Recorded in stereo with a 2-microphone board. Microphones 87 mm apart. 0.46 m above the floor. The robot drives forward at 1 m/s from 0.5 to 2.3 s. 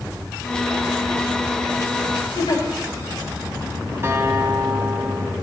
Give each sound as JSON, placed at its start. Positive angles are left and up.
{"t": 2.4, "sound": "a giggle", "side_deg": 65, "distance_m": 9.0}
{"t": 4.0, "sound": "a guitar", "side_deg": -35, "distance_m": 2.5}